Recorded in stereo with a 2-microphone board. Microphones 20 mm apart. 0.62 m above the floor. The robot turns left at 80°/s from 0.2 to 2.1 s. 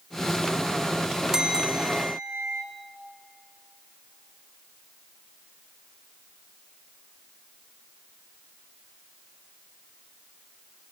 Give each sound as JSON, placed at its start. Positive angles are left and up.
{"t": 1.3, "sound": "a bell", "azimuth_deg": -30, "distance_m": 1.7}